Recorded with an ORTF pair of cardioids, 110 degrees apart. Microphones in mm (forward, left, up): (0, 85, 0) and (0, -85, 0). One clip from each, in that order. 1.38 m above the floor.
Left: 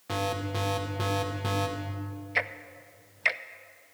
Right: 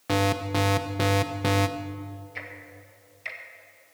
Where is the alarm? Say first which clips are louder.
Right 6 dB; 40° right, 1.0 m.